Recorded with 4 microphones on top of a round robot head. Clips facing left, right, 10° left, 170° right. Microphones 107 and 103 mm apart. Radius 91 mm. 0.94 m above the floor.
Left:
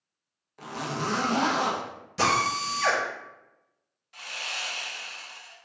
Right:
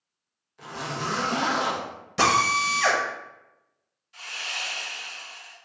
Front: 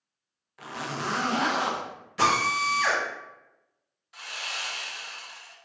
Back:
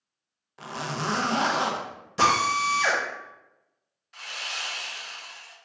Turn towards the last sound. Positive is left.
turn(degrees=95)